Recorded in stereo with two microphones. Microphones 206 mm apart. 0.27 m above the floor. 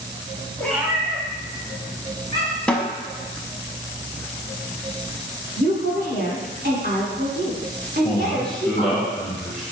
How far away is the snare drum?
About 0.5 m.